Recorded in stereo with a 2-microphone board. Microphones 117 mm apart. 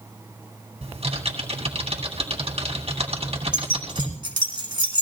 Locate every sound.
0.8 s typing on a keyboard: 65° right (ahead or behind), 2.5 m
3.5 s keys jangling: 40° right (ahead or behind), 2 m